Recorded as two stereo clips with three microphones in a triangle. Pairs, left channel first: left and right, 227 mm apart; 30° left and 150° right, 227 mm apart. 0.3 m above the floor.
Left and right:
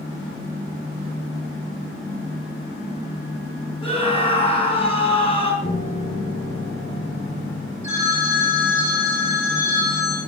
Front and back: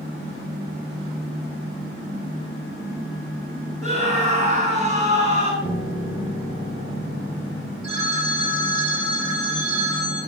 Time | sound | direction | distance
3.8 | a scream | 155° left | 3.5 m
5.6 | a piano | 55° left | 6 m
7.8 | a phone ringing | 30° left | 7.5 m